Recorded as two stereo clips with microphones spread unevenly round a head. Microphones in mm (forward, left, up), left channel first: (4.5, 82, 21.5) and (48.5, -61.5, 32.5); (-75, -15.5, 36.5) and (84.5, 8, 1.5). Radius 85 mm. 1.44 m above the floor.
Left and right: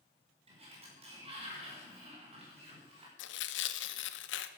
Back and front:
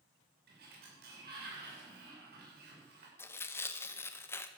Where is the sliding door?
20° right, 6 m.